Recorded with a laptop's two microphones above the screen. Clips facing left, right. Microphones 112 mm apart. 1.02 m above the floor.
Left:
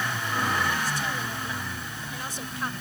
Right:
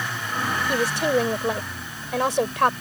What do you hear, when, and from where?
0.7 s a woman speaking: 80° right